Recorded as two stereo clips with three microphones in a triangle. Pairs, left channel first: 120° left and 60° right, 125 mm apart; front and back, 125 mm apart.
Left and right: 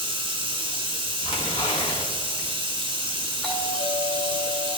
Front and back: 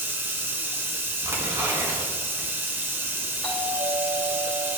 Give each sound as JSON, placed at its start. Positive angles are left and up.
{"t": 0.0, "sound": "running water", "azimuth_deg": -110, "distance_m": 0.9}
{"t": 1.2, "sound": "tearing paper", "azimuth_deg": 120, "distance_m": 1.7}
{"t": 3.4, "sound": "a doorbell", "azimuth_deg": 45, "distance_m": 2.0}